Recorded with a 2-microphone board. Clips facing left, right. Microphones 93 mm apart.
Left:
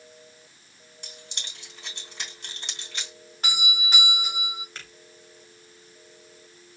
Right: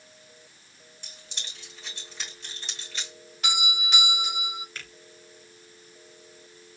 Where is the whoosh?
No whoosh in this recording.